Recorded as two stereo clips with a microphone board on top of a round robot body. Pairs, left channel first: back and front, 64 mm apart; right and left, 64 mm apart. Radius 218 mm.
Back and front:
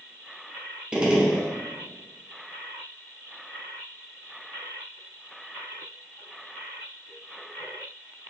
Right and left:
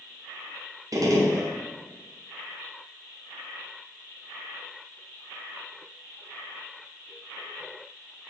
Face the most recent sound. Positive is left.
turn(degrees=75)